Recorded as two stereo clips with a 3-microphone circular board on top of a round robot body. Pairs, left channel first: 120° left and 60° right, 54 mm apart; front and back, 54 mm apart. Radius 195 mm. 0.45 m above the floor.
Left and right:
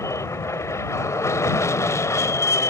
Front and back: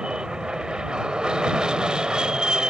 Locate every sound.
0.0 s an aircraft: 105° left